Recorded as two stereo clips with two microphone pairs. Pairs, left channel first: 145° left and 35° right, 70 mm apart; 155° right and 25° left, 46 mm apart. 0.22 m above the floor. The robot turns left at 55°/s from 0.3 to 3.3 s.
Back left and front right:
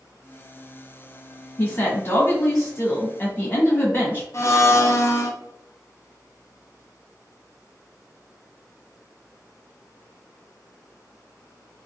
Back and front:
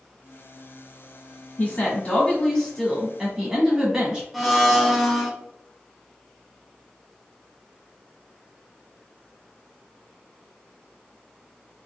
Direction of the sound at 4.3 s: 115° left.